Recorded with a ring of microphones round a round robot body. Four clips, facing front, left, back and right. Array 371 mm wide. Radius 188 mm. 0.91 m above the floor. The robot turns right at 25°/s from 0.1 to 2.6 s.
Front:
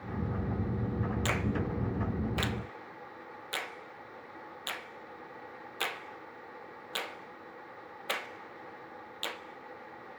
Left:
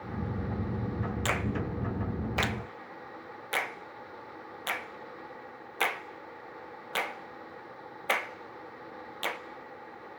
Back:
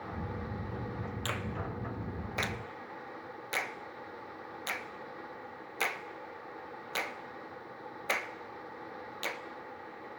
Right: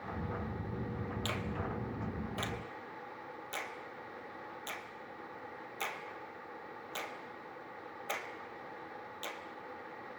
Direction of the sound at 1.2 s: 70° left.